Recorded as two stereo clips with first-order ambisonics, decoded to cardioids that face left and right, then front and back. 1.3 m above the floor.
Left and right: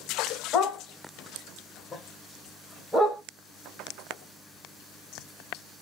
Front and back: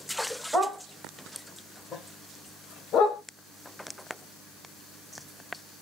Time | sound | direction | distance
0.5 | a dog barking | 110° left | 1.3 m